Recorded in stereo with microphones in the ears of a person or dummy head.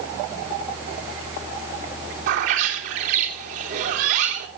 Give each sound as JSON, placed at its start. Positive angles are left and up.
{"t": 2.3, "sound": "a bird", "side_deg": -65, "distance_m": 3.5}